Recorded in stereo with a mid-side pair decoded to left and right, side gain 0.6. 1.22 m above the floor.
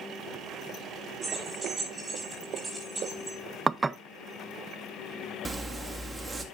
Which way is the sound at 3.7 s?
25° right.